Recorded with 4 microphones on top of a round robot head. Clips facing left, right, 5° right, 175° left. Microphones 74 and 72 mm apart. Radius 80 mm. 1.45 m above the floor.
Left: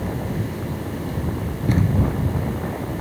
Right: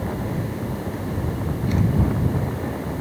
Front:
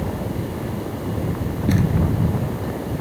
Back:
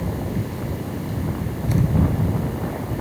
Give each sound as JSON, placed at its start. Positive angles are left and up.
{"t": 1.7, "sound": "a thud", "azimuth_deg": 30}